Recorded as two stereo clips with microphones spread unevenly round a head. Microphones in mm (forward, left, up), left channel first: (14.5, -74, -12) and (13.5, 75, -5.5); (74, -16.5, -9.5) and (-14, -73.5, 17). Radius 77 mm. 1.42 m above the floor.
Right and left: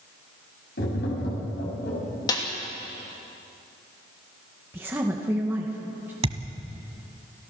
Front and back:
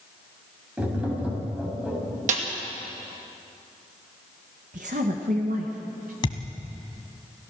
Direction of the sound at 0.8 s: 75° right.